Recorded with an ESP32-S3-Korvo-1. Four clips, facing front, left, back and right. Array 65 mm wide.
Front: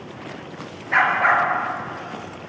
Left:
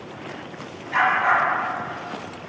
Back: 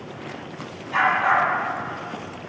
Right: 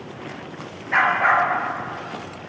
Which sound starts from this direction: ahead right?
A dog barking, at 0.9 s.